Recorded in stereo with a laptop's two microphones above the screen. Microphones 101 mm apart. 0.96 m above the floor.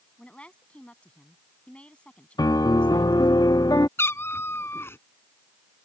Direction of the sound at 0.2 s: 10° left (ahead or behind).